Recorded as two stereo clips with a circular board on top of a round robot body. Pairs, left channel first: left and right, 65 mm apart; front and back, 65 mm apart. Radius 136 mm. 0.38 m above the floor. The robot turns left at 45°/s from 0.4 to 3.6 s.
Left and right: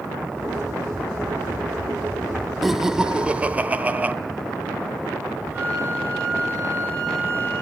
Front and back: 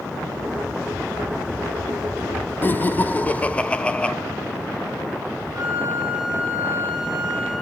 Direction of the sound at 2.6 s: 5° right.